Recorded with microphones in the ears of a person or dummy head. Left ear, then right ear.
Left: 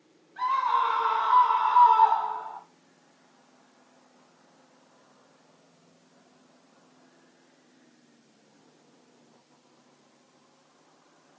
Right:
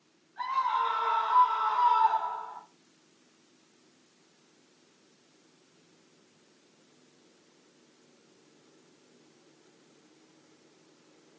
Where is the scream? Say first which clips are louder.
Left 4 dB; 30° left (ahead or behind), 6 m.